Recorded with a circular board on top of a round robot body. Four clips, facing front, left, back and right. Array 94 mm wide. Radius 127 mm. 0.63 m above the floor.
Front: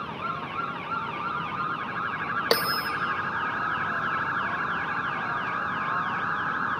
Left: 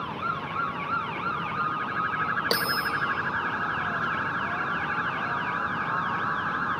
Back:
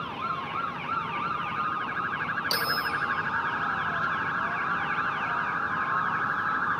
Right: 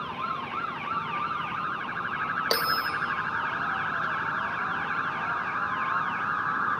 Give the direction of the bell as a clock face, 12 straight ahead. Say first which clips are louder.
Even, front 6 dB; 12 o'clock.